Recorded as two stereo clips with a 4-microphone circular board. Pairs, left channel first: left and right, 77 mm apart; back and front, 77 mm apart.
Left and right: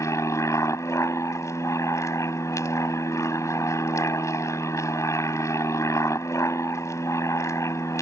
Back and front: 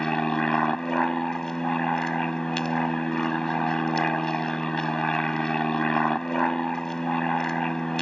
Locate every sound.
0.0 s an aircraft: 100° left